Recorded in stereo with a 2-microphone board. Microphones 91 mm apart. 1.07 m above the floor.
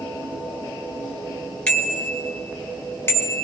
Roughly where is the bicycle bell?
Centre.